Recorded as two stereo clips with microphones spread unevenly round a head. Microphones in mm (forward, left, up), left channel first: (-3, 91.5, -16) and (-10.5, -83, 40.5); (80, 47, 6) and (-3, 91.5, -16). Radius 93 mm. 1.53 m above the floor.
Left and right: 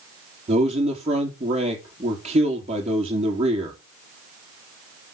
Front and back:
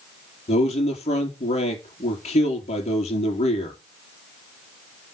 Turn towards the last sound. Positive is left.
turn(degrees=-35)